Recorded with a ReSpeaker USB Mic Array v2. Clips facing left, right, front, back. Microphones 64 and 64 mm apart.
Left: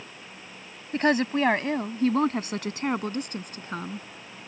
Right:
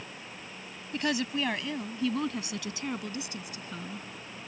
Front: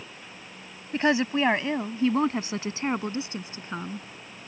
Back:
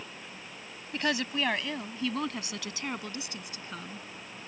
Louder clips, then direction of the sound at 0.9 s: Left 7 dB, front 7 dB; 55° left.